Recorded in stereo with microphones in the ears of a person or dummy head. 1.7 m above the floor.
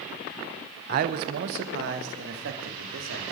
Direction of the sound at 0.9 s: 50° right (ahead or behind).